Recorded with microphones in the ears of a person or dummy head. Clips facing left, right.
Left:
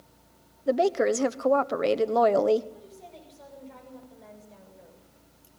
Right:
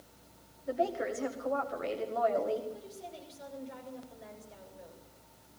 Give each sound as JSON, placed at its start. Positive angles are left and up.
{"t": 0.7, "sound": "a woman speaking", "side_deg": 80, "distance_m": 1.0}
{"t": 2.7, "sound": "a woman speaking", "side_deg": -5, "distance_m": 7.5}